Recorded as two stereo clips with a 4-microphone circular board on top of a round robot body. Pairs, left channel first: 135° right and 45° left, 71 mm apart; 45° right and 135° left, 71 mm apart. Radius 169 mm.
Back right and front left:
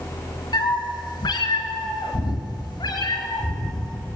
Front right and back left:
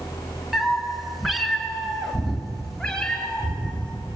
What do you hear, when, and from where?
0.5 s a cat meowing: 140° right, 1.9 m; by 4.0 s 125° right, 4.5 m